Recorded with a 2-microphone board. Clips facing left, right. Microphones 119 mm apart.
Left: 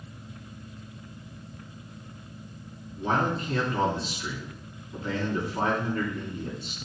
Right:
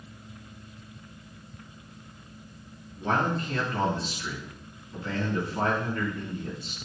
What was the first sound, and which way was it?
A man speaking, 10° left (ahead or behind).